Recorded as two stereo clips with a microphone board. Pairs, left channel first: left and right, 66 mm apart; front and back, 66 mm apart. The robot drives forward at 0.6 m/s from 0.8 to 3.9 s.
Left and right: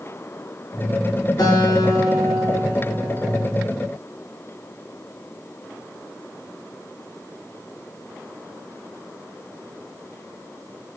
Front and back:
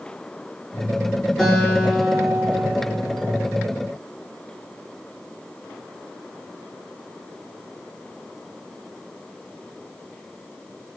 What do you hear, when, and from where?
1.4 s a guitar: 80° left, 4.5 m; by 3.5 s 95° left, 4.5 m